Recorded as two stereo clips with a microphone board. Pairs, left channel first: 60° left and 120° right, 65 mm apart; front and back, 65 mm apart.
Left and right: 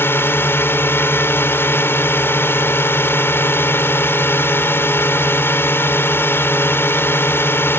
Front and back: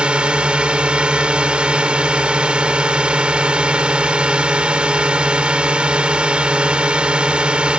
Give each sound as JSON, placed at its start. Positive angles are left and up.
{"t": 0.0, "sound": "a drone", "azimuth_deg": 105}